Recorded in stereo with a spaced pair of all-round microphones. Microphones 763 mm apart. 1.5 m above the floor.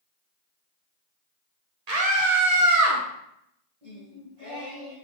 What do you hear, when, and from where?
1.9 s a scream: 55° right (ahead or behind), 1.2 m; by 3.0 s 15° right (ahead or behind), 0.9 m
3.8 s singing: 40° right (ahead or behind), 1.6 m